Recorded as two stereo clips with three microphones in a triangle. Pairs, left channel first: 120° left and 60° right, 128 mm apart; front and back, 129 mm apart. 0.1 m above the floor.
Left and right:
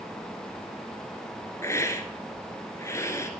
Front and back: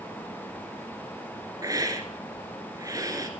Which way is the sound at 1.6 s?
160° left.